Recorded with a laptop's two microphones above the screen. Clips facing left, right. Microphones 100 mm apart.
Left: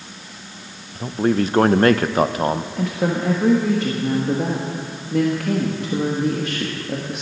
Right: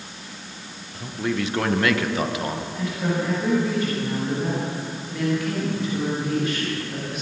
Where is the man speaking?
40° left (ahead or behind), 0.6 m.